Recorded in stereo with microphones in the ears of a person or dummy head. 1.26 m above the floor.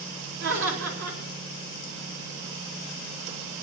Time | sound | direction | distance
0.4 | laughter | 60° right (ahead or behind) | 4.5 m